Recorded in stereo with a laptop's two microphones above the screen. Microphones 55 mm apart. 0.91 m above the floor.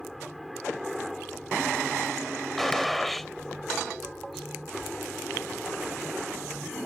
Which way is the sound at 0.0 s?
5° left (ahead or behind).